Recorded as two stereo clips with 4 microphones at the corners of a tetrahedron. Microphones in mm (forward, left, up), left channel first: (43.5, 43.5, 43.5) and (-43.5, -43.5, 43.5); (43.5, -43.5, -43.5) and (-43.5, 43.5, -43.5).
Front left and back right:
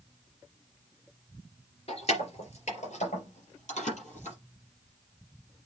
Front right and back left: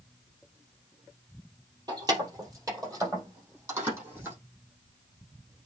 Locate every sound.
1.9 s keys jangling: 80° left, 3 m; by 4.4 s 65° left, 5.5 m